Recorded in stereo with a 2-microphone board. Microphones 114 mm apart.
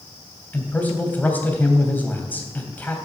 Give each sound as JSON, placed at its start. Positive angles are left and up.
{"t": 0.5, "sound": "a man speaking", "side_deg": 15, "distance_m": 3.0}